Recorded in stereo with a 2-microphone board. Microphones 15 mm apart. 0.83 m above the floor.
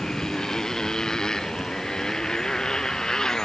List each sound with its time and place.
0.0 s a motorcycle: 45° left (ahead or behind)